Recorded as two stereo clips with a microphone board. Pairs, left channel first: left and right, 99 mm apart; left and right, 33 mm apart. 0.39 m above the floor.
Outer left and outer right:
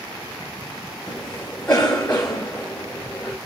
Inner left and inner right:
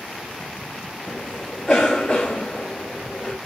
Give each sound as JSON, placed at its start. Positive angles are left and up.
{"t": 1.1, "sound": "a cough", "side_deg": 15, "distance_m": 1.0}